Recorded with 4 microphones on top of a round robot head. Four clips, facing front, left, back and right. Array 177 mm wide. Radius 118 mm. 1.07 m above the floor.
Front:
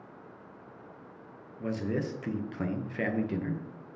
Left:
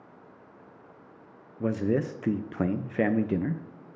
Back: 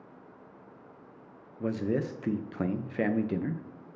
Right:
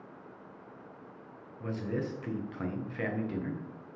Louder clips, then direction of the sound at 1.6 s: Left 8 dB, back 2 dB; 105° left.